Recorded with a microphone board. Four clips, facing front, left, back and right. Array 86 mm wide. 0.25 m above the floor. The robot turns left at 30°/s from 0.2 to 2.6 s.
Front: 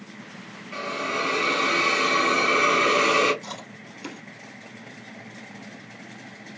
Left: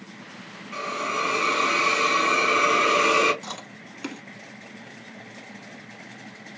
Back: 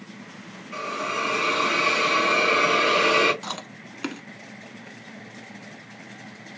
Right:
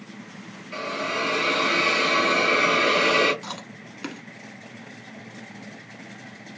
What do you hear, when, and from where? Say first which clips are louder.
0.7 s a hiss: even, even; 70° right, 1.6 m; by 3.3 s 125° right, 1.6 m
3.4 s chewing: right 1 dB, back 3 dB; 170° right, 0.9 m